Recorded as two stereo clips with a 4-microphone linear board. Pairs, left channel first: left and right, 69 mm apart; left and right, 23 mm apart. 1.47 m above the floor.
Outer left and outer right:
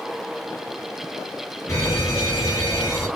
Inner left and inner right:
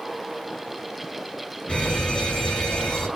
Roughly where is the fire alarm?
Left.